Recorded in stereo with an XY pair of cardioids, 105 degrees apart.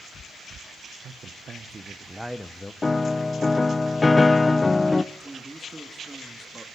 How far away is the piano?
About 0.6 m.